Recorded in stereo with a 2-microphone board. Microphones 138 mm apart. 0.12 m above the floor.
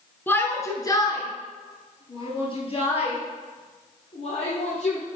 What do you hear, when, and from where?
0.3 s a shout: 15° left (ahead or behind), 1.1 m; by 5.0 s 50° left (ahead or behind), 3.5 m